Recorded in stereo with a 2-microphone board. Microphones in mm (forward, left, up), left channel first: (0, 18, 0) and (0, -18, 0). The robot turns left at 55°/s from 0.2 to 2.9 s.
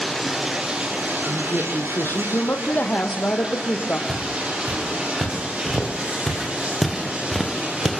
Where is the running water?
5° left, 9.5 m; by 8.0 s 145° right, 9.5 m.